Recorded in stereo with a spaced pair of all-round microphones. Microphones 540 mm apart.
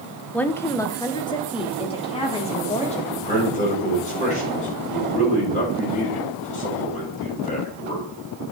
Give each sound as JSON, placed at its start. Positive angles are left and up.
{"t": 0.3, "sound": "a woman speaking", "side_deg": 5, "distance_m": 0.7}
{"t": 3.1, "sound": "a man speaking", "side_deg": 15, "distance_m": 5.0}